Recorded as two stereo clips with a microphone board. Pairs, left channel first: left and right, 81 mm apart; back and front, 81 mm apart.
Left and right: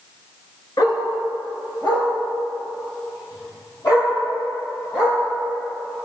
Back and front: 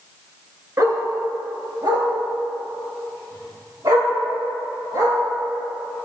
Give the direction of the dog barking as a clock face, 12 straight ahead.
10 o'clock.